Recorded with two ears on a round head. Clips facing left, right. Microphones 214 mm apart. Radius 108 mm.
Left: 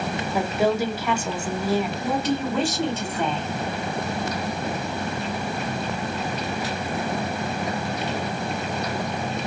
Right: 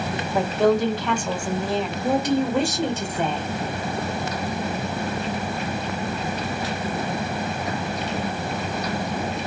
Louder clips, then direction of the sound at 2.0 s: Right 3 dB; 15° right (ahead or behind).